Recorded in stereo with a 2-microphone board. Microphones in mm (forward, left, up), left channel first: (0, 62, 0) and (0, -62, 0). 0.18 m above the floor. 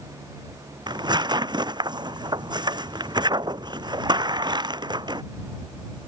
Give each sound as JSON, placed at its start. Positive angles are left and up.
{"t": 0.9, "sound": "tearing paper", "side_deg": -35}